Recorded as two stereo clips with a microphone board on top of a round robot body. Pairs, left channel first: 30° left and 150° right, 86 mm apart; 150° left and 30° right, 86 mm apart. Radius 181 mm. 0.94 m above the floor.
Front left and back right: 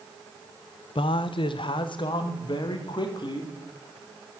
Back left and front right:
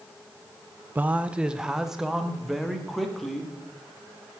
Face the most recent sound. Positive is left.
turn(degrees=60)